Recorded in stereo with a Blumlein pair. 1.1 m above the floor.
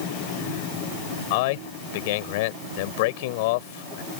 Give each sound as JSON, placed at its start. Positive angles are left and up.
{"t": 1.3, "sound": "a man speaking", "azimuth_deg": 50}